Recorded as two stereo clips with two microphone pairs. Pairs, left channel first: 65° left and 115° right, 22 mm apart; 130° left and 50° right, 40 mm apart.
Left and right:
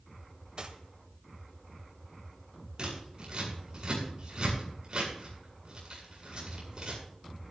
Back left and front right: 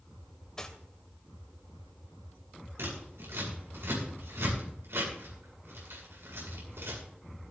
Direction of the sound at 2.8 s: 60° right.